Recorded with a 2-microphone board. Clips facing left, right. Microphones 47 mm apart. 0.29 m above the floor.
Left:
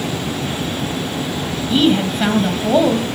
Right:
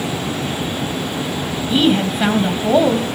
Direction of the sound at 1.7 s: 5° right (ahead or behind).